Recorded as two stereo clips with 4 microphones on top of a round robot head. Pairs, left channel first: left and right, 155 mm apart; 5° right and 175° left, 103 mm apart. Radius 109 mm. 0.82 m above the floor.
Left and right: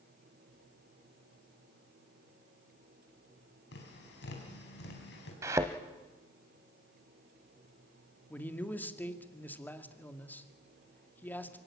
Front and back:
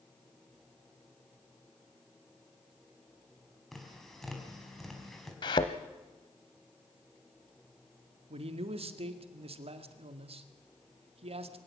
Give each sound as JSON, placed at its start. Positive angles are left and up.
{"t": 3.7, "sound": "tapping", "azimuth_deg": 85, "distance_m": 4.5}
{"t": 5.4, "sound": "a thud", "azimuth_deg": -20, "distance_m": 0.7}
{"t": 8.3, "sound": "a man speaking", "azimuth_deg": 170, "distance_m": 1.9}